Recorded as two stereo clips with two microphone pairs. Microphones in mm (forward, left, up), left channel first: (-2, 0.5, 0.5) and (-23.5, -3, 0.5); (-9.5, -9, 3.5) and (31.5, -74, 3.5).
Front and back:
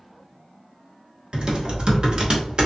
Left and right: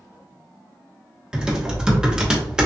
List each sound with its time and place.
1.3 s typing on a keyboard: 135° right, 1.1 m